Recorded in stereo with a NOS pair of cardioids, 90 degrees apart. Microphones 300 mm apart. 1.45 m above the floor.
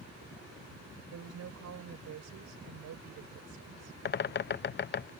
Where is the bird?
35° left.